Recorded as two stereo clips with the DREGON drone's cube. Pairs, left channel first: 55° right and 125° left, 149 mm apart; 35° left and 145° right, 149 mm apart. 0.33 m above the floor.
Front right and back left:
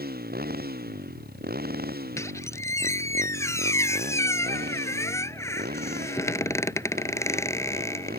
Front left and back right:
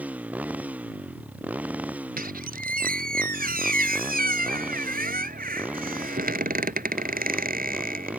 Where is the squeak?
125° right.